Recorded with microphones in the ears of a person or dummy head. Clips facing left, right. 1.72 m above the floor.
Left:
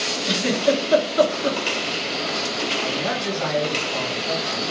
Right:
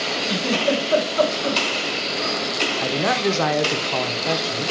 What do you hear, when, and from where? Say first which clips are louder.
0.2 s a giggle: left 2 dB; 35° left (ahead or behind), 1.6 m
2.8 s a man speaking: right 7 dB; 70° right (ahead or behind), 0.9 m